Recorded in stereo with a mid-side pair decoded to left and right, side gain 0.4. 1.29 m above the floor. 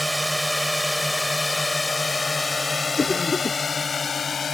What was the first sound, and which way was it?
A drone, 5° right.